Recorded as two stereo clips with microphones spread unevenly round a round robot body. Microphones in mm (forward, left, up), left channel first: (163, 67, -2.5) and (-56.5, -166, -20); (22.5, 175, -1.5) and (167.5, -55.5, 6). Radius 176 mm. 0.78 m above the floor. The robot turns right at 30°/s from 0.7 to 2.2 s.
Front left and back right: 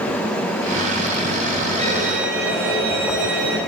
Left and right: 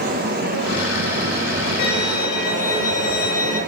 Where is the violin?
150° left, 2.5 m; by 3.6 s 165° left, 2.5 m.